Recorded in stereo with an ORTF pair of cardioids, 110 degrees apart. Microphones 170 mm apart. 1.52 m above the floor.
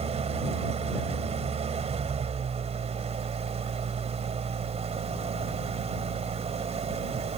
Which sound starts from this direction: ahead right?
An engine running, at 0.0 s.